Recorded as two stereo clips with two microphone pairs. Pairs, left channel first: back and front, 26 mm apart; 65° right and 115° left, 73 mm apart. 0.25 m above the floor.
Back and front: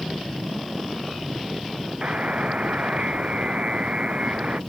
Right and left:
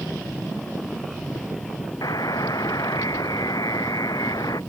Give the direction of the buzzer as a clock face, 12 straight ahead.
1 o'clock.